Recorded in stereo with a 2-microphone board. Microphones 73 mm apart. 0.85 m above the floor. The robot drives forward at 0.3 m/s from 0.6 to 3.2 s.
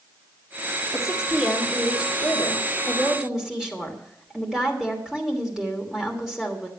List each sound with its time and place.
0.9 s a woman speaking: 10° right (ahead or behind), 2 m